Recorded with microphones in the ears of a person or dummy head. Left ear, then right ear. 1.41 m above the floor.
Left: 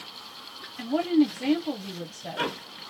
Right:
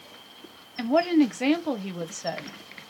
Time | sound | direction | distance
0.8 | a woman speaking | 45° right (ahead or behind) | 0.8 m